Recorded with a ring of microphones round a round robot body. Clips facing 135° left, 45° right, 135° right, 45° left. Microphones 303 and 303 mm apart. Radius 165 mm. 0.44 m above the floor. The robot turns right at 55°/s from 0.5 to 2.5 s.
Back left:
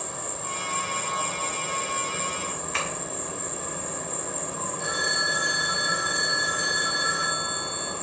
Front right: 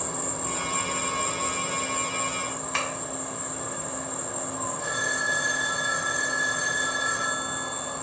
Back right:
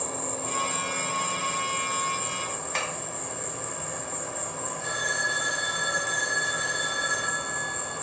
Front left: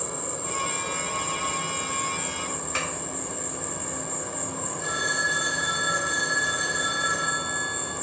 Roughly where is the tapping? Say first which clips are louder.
Front right 1 dB, front left 1 dB; ahead right.